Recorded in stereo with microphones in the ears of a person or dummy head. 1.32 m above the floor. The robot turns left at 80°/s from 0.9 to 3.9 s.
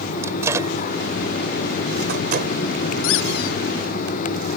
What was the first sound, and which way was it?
A microwave, 15° right (ahead or behind).